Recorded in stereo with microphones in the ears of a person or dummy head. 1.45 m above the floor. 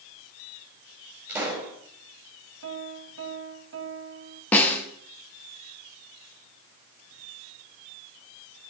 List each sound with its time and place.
1.3 s a pop: 15° right (ahead or behind), 5 m
2.6 s a piano: 65° right (ahead or behind), 1.7 m
4.5 s a snare drum: 10° left (ahead or behind), 1.8 m